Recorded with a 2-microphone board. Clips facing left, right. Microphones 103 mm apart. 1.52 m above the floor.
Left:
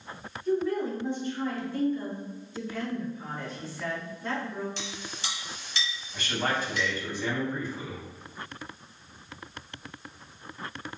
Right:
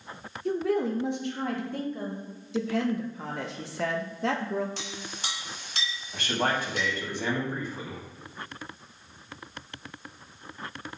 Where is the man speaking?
60° right (ahead or behind), 1.6 m.